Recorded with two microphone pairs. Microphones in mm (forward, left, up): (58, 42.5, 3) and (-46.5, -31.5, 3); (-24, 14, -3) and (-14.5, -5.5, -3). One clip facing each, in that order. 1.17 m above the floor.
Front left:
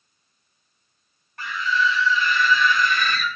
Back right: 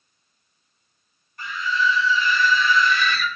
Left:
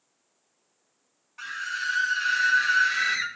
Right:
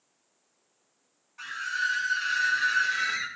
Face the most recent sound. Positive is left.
turn(degrees=75)